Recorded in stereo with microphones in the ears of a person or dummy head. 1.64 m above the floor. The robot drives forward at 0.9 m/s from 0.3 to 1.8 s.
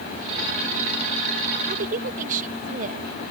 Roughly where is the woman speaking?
Right.